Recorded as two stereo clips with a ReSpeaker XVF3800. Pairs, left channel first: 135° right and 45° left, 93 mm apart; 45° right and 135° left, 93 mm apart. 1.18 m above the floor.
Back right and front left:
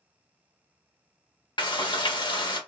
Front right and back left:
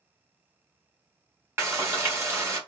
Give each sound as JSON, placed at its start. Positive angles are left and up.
{"t": 1.6, "sound": "frying", "azimuth_deg": -165, "distance_m": 1.0}